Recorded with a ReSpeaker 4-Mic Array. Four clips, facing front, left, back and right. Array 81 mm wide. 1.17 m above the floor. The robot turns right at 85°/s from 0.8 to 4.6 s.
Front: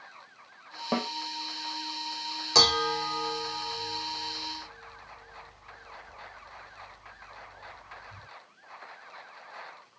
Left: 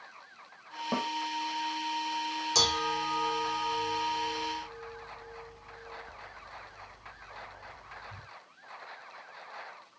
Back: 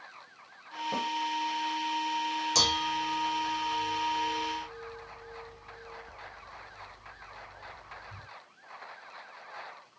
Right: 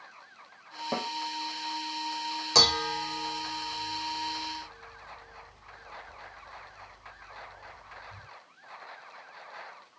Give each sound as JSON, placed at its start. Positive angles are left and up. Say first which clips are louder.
{"t": 0.9, "sound": "a snare drum", "louder": "left 1 dB, front 3 dB", "azimuth_deg": 0, "distance_m": 1.0}
{"t": 2.5, "sound": "dishes clattering", "louder": "right 3 dB, front 8 dB", "azimuth_deg": -50, "distance_m": 0.6}